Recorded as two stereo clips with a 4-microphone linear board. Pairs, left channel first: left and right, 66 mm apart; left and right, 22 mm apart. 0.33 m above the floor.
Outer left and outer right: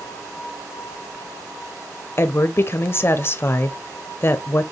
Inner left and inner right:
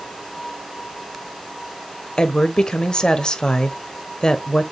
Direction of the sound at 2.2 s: 35° left (ahead or behind).